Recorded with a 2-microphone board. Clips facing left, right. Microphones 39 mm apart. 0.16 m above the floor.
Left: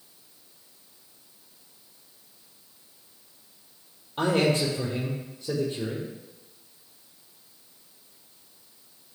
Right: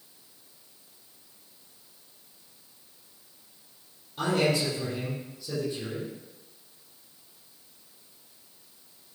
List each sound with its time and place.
4.2 s a man speaking: 40° left (ahead or behind), 4.5 m